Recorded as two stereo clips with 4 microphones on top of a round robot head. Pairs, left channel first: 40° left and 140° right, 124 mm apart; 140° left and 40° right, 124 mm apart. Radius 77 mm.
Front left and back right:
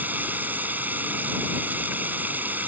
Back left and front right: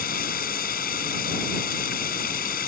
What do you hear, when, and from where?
0.0 s running water: 145° left